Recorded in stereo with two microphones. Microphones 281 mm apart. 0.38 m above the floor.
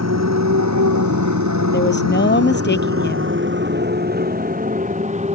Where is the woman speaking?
40° left (ahead or behind).